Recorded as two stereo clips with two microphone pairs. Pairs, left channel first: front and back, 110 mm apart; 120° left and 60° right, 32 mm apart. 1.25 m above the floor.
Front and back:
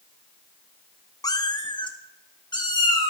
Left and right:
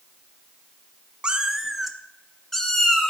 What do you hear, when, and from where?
1.2 s a cat meowing: 25° right, 0.6 m; by 3.1 s 45° left, 1.5 m